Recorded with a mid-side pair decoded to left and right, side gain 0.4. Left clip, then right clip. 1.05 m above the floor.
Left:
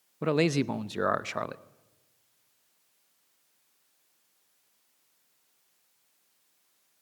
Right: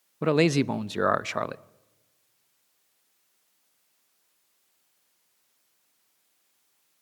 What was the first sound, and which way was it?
A man speaking, 30° right.